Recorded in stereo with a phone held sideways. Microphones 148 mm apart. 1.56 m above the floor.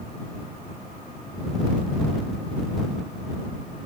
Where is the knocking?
I don't hear knocking.